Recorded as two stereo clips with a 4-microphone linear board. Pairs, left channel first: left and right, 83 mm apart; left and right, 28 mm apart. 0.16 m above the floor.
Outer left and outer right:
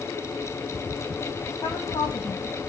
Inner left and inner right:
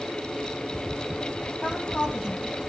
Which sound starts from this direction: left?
A woman speaking, at 1.6 s.